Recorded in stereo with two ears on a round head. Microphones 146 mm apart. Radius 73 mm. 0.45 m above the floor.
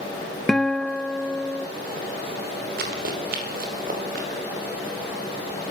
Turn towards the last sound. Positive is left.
turn(degrees=-55)  # may be behind; listen again after turning